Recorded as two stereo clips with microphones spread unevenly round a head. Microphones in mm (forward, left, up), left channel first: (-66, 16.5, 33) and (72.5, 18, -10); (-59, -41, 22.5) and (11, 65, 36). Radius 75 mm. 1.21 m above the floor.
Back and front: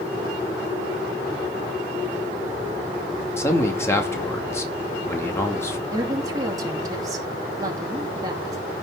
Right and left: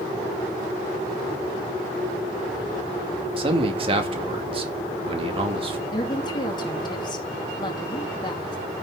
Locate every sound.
3.4 s a man speaking: 105° left, 2.5 m
5.9 s a woman speaking: 65° right, 2.5 m